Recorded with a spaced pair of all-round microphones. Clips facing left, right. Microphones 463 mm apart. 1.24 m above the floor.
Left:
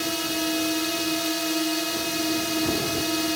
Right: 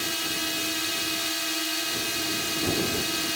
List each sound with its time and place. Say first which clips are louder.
0.0 s a drone: left 7 dB; 65° left (ahead or behind)